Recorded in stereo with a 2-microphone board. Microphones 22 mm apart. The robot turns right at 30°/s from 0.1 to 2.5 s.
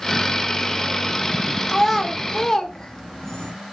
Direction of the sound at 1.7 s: Centre (ahead or behind).